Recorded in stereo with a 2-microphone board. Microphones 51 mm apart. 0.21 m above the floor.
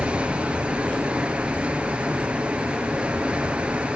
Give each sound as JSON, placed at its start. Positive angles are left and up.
{"t": 0.0, "sound": "running water", "side_deg": -20, "distance_m": 2.5}